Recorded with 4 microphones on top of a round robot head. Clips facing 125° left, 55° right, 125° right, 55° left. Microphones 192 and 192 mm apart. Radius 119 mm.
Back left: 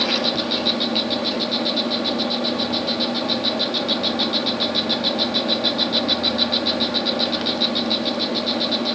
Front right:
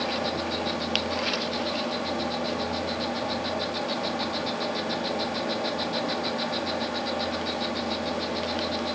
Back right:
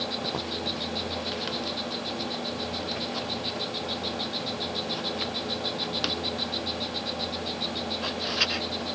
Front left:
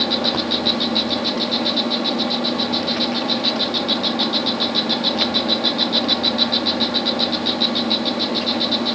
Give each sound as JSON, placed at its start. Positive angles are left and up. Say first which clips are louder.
{"t": 0.0, "sound": "an insect", "louder": "back left 6 dB, front left 11 dB", "azimuth_deg": 70}